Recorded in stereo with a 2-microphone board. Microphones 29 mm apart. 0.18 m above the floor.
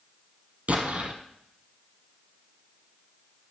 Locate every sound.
0.7 s an explosion: 60° right (ahead or behind), 1.6 m